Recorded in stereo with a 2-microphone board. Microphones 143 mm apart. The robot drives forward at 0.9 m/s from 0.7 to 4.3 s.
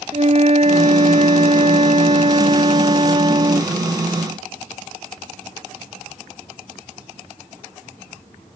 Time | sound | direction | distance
0.1 | a flute | 50° right (ahead or behind) | ?